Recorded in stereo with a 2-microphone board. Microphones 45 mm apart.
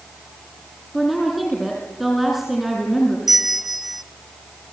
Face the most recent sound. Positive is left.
turn(degrees=-5)  # may be behind; listen again after turning